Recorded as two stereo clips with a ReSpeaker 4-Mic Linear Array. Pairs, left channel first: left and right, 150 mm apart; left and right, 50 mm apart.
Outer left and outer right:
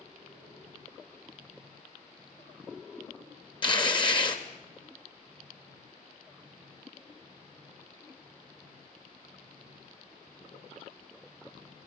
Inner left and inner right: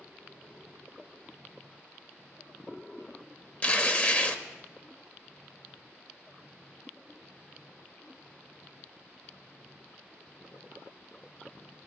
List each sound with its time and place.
3.6 s tearing paper: 35° left (ahead or behind), 1.1 m